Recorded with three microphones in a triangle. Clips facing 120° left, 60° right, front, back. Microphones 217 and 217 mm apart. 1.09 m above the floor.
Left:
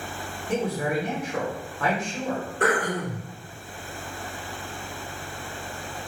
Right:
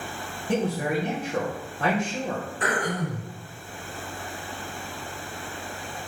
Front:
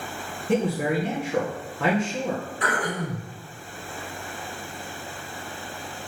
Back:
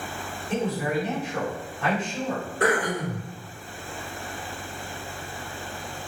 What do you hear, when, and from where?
0.5 s a man speaking: straight ahead, 2 m
2.6 s throat clearing: 150° left, 3.5 m